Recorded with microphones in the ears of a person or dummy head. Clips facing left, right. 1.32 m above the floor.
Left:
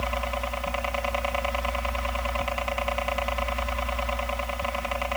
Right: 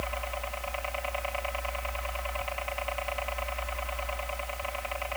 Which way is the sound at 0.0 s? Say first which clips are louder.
Left 6 dB; 60° left (ahead or behind).